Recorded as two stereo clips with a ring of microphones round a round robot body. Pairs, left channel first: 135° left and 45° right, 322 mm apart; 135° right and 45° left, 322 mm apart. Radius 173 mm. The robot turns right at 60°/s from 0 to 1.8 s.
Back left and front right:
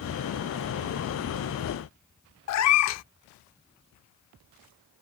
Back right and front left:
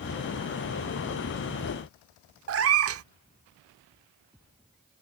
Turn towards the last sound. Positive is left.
turn(degrees=95)